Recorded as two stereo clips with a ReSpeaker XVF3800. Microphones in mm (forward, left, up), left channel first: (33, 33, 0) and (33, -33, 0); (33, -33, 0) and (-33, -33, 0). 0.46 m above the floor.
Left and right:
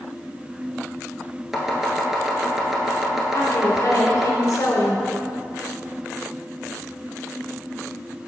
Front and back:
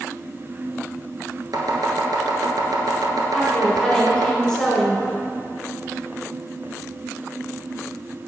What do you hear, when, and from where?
1.5 s chopping: 175° right, 1.0 m
3.3 s a woman speaking: 85° left, 1.7 m